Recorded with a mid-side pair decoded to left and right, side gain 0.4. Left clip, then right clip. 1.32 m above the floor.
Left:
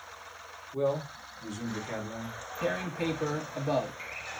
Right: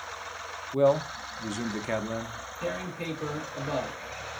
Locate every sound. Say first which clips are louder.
0.7 s a man speaking: right 7 dB; 65° right, 0.9 m
2.6 s tearing paper: left 2 dB; 40° left, 1.8 m